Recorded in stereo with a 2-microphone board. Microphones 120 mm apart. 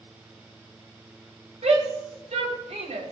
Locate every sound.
1.6 s a shout: 75° right (ahead or behind), 4 m